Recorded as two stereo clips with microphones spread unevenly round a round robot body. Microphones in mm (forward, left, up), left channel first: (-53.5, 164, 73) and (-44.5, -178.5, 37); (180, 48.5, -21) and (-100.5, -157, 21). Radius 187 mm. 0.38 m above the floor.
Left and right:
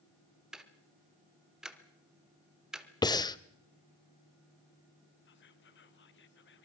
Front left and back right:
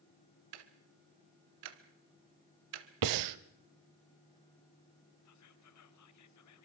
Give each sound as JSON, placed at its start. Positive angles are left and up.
{"t": 0.5, "sound": "ticking", "azimuth_deg": -175, "distance_m": 1.5}
{"t": 3.0, "sound": "breathing", "azimuth_deg": 170, "distance_m": 0.7}
{"t": 5.2, "sound": "whispering", "azimuth_deg": 35, "distance_m": 1.6}